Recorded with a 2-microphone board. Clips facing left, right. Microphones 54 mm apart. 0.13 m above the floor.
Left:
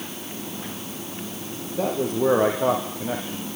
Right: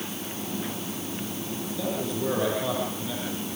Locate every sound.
1.8 s a man speaking: 50° left (ahead or behind), 5.5 m